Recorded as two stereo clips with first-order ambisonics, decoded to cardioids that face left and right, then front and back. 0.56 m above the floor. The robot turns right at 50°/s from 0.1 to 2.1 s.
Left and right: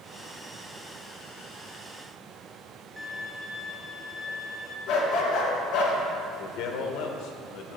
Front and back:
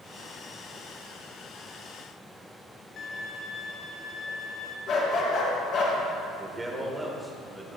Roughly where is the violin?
Ahead.